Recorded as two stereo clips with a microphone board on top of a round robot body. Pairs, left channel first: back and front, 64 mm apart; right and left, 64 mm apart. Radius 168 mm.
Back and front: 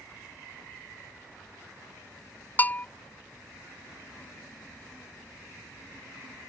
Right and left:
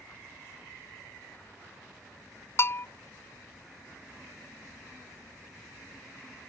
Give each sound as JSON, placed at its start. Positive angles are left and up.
{"t": 2.6, "sound": "a bell", "azimuth_deg": -125}